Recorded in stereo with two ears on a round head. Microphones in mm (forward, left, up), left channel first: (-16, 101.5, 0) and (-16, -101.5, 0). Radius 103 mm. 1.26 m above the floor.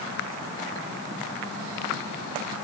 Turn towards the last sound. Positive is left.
No sound to turn to.